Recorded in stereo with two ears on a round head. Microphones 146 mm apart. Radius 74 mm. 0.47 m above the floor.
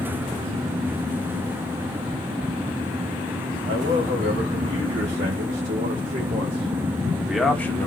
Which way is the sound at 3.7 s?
75° right (ahead or behind).